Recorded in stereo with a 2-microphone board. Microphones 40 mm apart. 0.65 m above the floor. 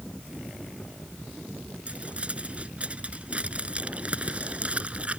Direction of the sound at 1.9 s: 30° right (ahead or behind).